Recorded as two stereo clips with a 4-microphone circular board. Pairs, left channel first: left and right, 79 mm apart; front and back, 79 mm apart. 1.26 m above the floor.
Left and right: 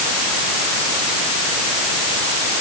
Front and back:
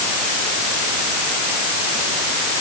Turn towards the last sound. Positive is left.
No sound to turn to.